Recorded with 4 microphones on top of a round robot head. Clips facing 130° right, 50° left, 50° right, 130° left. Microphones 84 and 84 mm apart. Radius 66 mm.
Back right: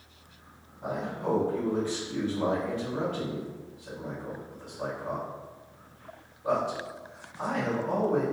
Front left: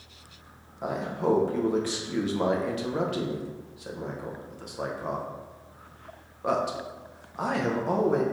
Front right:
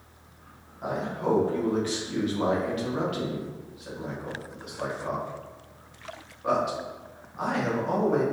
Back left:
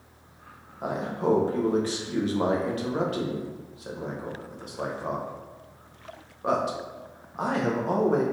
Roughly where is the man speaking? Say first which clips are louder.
Front left 4 dB, back left 2 dB; left.